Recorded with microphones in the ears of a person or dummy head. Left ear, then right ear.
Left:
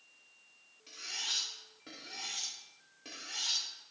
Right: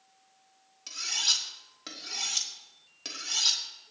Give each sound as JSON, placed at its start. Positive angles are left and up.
{"t": 0.9, "sound": "cutlery clinking", "side_deg": -60, "distance_m": 2.0}